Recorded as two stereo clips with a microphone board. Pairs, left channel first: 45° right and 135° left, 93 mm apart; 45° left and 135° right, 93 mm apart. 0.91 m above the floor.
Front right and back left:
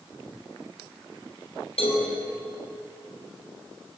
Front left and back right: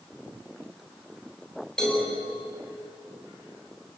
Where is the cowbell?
35° right, 7 m.